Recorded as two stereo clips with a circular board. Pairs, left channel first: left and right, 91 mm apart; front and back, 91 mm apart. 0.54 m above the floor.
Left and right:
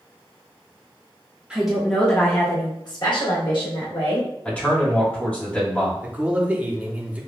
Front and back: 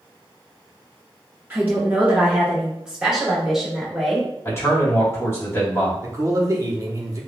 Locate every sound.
1.5 s a woman speaking: 150° right, 0.8 m; by 4.3 s 90° left, 1.9 m
4.5 s a man speaking: 25° left, 1.4 m
6.0 s a man speaking: 155° right, 0.8 m